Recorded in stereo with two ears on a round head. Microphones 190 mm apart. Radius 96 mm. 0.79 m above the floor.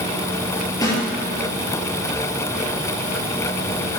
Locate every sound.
0.8 s a snare drum: 20° left (ahead or behind), 6 m